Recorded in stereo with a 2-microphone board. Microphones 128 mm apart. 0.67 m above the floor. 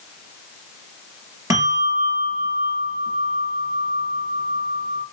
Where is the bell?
30° right (ahead or behind), 4.5 m.